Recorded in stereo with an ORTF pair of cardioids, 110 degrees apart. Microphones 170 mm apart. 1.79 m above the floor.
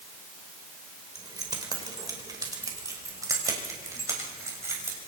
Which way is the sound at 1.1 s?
25° right.